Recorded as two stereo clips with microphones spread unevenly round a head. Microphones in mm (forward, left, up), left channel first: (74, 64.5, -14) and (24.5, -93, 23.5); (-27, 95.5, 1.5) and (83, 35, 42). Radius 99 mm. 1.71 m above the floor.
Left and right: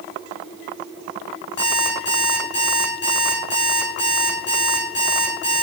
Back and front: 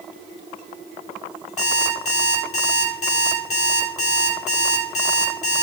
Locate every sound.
1.6 s an alarm clock: 120° left, 3.5 m